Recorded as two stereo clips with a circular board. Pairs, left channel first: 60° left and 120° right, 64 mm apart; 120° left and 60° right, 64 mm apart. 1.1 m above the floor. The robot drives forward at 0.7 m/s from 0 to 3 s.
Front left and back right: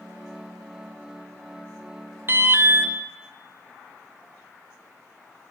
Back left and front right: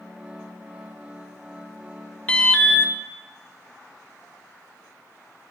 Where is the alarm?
170° right, 1.1 m; by 2.9 s 175° right, 1.6 m.